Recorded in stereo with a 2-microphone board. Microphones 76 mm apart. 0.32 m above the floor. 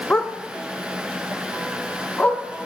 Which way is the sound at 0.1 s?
15° left (ahead or behind).